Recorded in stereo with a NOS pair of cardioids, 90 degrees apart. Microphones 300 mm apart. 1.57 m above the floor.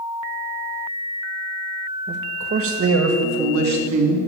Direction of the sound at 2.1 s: 35° right.